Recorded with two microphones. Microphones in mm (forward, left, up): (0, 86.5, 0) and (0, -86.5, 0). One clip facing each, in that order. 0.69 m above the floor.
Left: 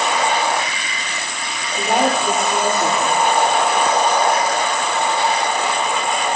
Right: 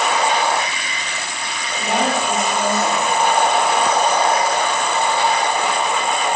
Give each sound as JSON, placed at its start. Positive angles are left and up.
{"t": 1.7, "sound": "a woman speaking", "side_deg": 55, "distance_m": 2.0}